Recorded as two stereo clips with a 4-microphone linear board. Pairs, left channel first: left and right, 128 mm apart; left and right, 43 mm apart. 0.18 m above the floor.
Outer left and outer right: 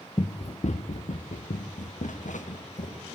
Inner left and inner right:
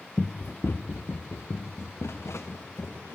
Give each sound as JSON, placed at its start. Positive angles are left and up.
{"t": 0.2, "sound": "running footsteps", "side_deg": 35, "distance_m": 1.0}